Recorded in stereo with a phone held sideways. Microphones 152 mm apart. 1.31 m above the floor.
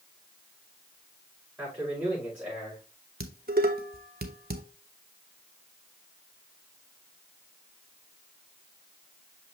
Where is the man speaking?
10° right (ahead or behind), 5 m; by 2.8 s 15° right (ahead or behind), 4.5 m.